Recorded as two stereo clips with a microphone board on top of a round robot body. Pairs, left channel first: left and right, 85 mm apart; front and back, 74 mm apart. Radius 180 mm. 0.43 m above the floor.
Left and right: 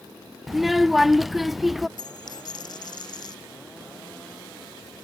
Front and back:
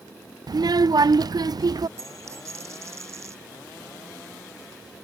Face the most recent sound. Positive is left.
turn(degrees=130)